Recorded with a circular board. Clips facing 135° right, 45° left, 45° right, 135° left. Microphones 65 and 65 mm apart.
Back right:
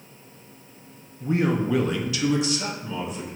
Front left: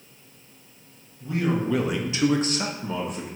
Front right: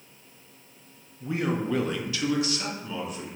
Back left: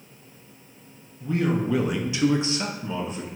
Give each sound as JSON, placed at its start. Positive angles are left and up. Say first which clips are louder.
{"t": 1.2, "sound": "a man speaking", "louder": "back right 2 dB, back left 3 dB", "azimuth_deg": -110, "distance_m": 0.6}